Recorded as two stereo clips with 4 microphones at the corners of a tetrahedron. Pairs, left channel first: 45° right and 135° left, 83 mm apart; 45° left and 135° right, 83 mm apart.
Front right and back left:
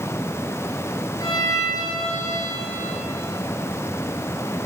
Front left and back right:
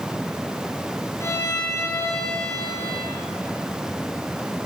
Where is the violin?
5° right, 5 m.